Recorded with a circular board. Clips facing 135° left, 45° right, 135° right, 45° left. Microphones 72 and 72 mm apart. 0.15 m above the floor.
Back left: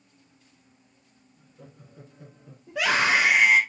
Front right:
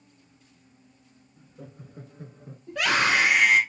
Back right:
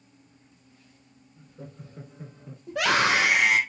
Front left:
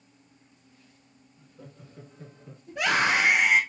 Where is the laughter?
90° right, 2.5 m; by 2.6 s 60° right, 1.7 m.